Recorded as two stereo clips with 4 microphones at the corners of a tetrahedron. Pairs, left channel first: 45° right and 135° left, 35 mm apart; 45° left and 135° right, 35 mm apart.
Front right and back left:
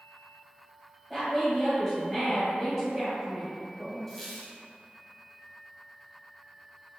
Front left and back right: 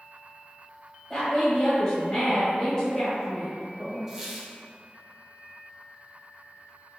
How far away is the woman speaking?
About 1.0 m.